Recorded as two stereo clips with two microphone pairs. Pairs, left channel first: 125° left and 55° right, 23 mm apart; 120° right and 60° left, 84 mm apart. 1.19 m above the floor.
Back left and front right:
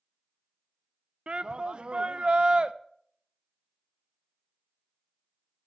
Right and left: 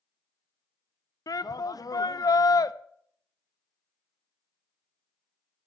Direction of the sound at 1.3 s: 90° right.